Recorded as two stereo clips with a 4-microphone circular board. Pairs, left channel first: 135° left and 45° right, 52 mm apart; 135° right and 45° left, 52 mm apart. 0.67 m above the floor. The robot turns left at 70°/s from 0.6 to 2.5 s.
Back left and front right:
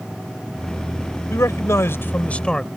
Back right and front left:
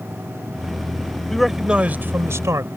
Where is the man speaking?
145° left; by 2.7 s 60° left.